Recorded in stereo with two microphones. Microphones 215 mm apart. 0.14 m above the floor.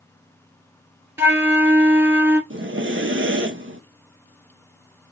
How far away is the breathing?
About 0.8 m.